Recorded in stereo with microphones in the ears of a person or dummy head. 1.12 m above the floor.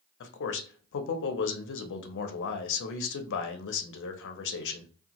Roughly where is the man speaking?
Left.